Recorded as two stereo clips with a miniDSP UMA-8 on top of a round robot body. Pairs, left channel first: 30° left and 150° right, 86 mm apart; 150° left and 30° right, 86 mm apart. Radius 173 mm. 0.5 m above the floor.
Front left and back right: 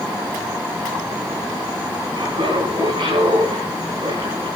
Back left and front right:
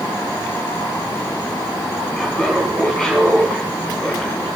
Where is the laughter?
130° right, 5 m; by 4.5 s 135° right, 6 m.